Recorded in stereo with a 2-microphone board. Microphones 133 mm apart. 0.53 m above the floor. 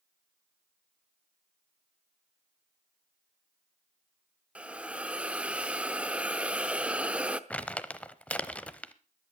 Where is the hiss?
10° right (ahead or behind), 0.8 m.